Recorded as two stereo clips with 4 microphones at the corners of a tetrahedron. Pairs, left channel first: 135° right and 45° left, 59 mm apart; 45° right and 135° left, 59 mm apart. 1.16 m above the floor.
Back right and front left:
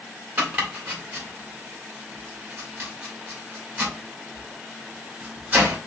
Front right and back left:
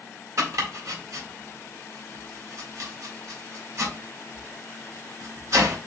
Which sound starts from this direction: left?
Chopping, at 0.4 s.